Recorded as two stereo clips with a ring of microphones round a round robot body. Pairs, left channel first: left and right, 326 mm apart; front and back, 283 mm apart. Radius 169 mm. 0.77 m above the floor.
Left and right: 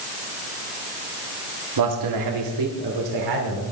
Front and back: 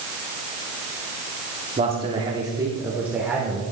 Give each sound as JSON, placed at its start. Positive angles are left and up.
{"t": 1.8, "sound": "a man speaking", "azimuth_deg": -110, "distance_m": 2.0}